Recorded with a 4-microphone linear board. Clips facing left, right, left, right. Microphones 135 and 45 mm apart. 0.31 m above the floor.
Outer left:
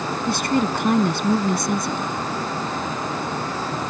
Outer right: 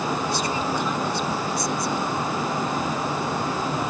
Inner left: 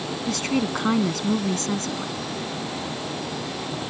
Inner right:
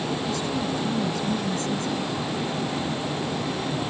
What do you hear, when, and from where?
0.3 s a woman speaking: 70° left (ahead or behind)